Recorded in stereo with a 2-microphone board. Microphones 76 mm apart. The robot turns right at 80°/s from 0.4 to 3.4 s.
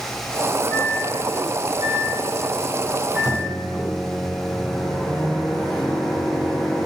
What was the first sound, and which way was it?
A microwave, 155° left.